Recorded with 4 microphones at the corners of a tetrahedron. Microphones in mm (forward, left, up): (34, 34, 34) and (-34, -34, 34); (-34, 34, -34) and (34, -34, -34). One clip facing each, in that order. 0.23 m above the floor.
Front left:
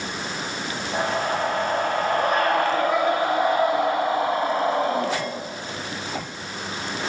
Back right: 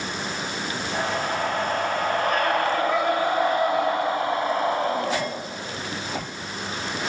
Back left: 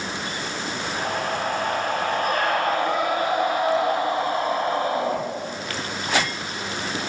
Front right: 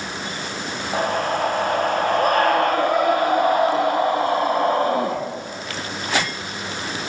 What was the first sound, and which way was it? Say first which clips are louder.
A scream: front left 3 dB, front right 6 dB; 25° right.